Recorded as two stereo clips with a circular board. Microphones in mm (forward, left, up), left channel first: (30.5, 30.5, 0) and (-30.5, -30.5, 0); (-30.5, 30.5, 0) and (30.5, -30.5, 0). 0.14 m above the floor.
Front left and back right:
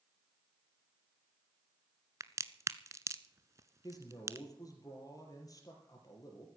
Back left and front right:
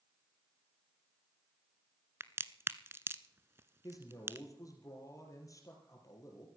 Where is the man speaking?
90° left, 4 m.